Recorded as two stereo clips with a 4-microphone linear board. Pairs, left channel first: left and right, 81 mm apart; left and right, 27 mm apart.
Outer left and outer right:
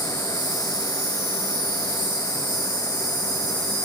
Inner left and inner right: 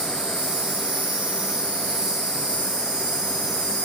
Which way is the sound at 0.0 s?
60° right (ahead or behind).